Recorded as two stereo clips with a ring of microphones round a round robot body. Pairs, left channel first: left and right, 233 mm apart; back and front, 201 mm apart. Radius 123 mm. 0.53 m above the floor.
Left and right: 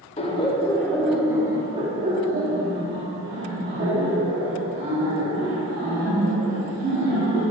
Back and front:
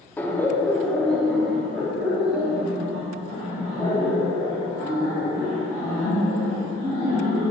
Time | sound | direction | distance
0.2 | laughter | 110° left | 1.2 m